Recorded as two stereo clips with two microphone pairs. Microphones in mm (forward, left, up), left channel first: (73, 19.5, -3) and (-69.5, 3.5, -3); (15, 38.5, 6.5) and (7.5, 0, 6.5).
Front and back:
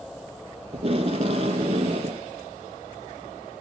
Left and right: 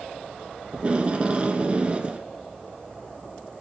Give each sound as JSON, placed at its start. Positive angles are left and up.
{"t": 0.7, "sound": "tape being pulled", "azimuth_deg": -150, "distance_m": 0.5}